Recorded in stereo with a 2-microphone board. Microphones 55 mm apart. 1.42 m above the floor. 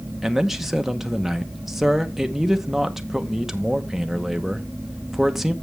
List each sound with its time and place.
0.2 s a man speaking: 5° right (ahead or behind), 0.8 m